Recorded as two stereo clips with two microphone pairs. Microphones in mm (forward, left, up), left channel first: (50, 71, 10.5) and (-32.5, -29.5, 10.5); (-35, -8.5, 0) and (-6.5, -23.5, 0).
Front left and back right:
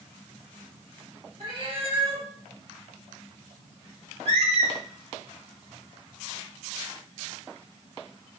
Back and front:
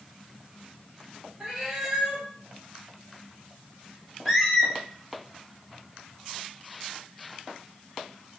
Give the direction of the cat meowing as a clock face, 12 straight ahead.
3 o'clock.